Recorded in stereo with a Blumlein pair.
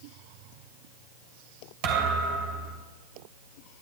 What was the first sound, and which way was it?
A thud, 45° right.